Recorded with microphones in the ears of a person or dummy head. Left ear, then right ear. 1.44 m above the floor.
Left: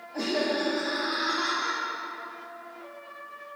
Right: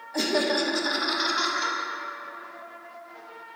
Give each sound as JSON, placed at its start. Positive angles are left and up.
{"t": 0.1, "sound": "laughter", "side_deg": -75, "distance_m": 0.6}